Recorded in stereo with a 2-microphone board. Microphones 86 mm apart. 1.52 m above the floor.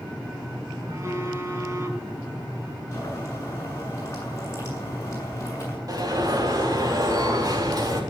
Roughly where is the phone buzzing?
Right.